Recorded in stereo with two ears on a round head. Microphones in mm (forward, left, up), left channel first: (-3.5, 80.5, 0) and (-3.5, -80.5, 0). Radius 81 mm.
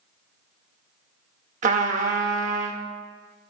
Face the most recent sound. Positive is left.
turn(degrees=-40)  # may be behind; listen again after turning